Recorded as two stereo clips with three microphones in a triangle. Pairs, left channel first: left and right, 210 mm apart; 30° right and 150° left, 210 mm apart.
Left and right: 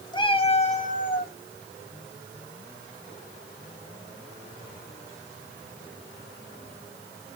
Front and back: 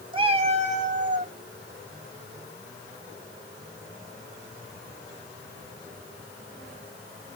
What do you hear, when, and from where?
0.1 s a cat meowing: 125° left, 0.9 m; by 1.3 s 115° left, 1.3 m